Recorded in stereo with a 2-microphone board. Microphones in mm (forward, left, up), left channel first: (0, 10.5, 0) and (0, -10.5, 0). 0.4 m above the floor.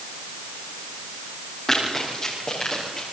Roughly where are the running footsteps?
Left.